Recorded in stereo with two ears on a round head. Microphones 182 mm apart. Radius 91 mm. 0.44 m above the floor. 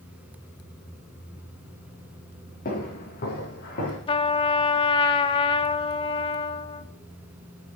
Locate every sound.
2.6 s footsteps: 45° left (ahead or behind), 4.5 m; by 4.0 s 55° left (ahead or behind), 5 m
4.1 s a trumpet: 25° left (ahead or behind), 0.5 m